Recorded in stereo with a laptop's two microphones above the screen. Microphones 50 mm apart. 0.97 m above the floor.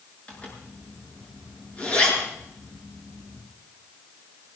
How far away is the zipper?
About 8 m.